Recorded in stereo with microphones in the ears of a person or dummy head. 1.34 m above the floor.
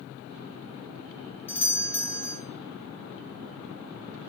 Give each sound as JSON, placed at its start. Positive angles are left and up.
{"t": 1.5, "sound": "a doorbell", "side_deg": 5, "distance_m": 0.6}